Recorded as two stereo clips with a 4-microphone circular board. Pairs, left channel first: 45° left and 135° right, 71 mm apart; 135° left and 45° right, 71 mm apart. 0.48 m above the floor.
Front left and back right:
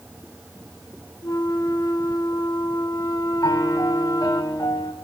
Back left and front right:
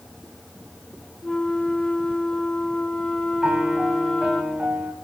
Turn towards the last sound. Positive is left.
turn(degrees=30)